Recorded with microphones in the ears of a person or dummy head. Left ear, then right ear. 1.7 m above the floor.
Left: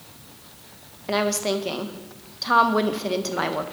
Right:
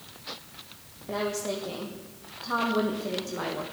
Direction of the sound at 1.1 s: 60° left (ahead or behind).